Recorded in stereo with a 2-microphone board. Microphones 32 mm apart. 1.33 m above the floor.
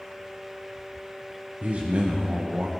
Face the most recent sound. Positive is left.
turn(degrees=-50)  # may be behind; listen again after turning